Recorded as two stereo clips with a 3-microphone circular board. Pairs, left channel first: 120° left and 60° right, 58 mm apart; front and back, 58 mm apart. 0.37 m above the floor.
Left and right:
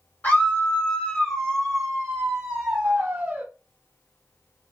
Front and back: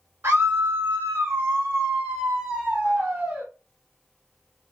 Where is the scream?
165° left, 1.9 m; by 3.5 s 120° right, 2 m.